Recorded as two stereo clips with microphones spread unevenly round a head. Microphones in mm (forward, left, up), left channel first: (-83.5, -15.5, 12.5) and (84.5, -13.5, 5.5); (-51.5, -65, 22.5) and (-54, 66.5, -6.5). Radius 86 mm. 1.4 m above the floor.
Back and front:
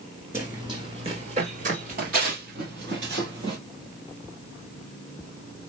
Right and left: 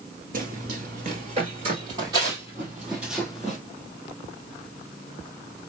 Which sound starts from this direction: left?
Running footsteps, at 0.3 s.